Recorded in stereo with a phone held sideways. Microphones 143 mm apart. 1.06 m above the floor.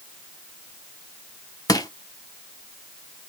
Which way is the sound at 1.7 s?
25° left (ahead or behind).